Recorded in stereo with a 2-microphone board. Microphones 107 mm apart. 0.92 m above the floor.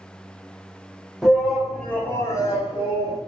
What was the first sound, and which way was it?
A shout, 5° right (ahead or behind).